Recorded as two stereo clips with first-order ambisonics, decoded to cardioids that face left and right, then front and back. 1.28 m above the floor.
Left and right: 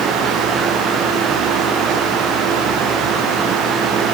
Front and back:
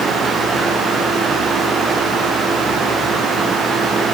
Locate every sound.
Only background noise.